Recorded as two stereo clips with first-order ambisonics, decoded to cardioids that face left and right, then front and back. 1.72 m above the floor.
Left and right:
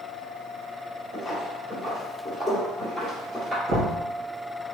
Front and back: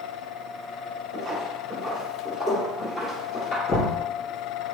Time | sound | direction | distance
1.1 | footsteps | 170° left | 1.7 m
3.7 | knocking | 75° right | 1.7 m